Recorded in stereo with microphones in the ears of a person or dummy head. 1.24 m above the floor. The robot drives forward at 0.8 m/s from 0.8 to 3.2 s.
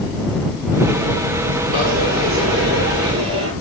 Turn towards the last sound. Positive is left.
turn(degrees=-85)